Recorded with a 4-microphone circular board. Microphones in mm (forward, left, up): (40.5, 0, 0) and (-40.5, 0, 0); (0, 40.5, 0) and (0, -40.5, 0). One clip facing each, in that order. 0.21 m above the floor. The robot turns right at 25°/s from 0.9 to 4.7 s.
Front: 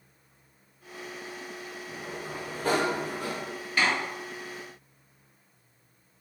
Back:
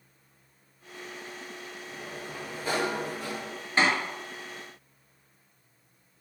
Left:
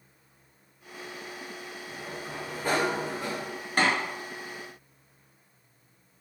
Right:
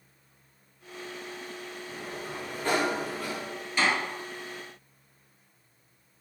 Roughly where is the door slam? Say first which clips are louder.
Back 2 dB, left 1 dB; behind left.